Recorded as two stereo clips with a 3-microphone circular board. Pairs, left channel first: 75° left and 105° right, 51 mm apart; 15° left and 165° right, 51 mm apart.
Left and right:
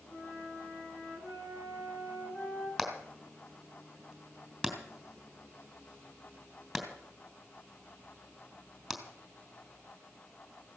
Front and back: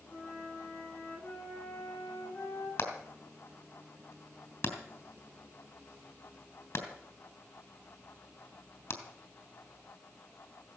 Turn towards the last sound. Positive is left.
turn(degrees=-15)